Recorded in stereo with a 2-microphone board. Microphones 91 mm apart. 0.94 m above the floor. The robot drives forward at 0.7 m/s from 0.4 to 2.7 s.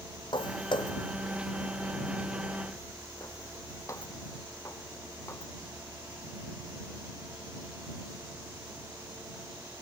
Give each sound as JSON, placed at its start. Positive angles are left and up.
{"t": 0.3, "sound": "footsteps", "side_deg": 60}